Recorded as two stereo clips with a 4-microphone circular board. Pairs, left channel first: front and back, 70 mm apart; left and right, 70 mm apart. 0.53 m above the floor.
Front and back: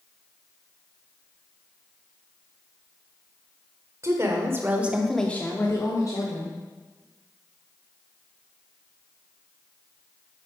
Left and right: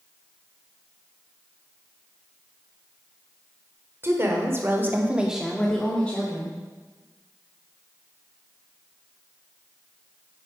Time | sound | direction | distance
4.0 | a woman speaking | 140° right | 1.9 m